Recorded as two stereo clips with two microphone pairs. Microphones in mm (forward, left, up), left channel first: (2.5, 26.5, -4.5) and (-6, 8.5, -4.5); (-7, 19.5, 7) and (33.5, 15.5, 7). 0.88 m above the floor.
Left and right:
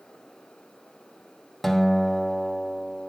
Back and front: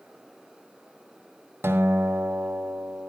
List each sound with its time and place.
1.6 s a guitar: 15° right, 1.7 m